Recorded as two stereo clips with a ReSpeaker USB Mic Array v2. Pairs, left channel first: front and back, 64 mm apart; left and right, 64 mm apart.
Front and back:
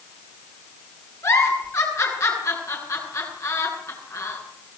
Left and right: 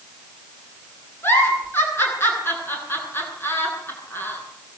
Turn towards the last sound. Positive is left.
turn(degrees=35)